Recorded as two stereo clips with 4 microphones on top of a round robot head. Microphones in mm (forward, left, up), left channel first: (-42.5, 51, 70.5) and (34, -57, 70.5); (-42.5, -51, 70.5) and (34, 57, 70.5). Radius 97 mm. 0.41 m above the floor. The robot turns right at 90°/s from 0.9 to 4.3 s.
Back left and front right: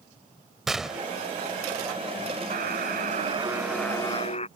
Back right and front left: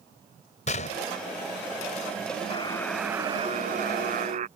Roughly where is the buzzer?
Right.